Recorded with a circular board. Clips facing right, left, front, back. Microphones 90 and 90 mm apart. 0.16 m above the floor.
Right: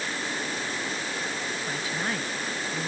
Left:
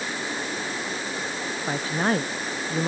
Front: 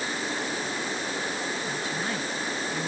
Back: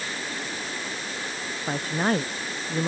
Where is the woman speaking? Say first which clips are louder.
Left 9 dB, back 5 dB; 140° left; by 2.9 s 135° left.